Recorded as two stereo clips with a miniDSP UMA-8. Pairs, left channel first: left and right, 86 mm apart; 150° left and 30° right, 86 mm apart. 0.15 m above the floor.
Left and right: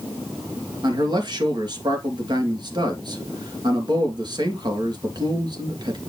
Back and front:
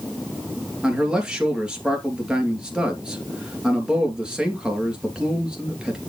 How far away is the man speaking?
About 3 m.